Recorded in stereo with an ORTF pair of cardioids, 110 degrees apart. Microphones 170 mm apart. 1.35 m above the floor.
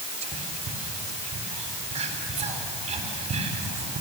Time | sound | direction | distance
0.2 | whispering | 40° right | 4 m